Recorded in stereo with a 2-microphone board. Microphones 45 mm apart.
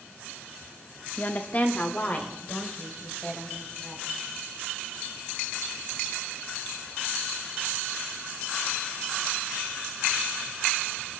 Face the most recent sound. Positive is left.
turn(degrees=30)  # may be behind; listen again after turning